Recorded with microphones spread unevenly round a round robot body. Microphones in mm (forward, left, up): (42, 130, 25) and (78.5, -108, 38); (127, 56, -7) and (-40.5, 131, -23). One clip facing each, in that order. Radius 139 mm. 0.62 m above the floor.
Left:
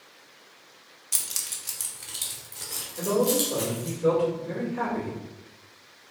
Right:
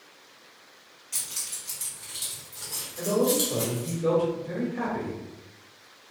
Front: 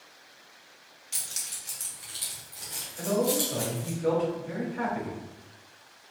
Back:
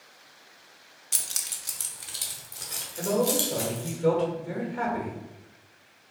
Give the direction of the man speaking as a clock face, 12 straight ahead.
6 o'clock.